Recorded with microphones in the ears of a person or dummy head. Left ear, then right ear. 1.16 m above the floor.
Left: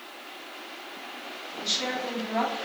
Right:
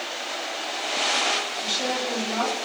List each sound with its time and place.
1.6 s a woman speaking: 45° left (ahead or behind), 2.0 m